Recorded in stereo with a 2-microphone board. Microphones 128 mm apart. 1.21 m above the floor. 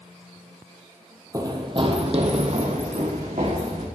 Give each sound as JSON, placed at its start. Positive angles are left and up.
{"t": 1.3, "sound": "running footsteps", "side_deg": -25, "distance_m": 1.4}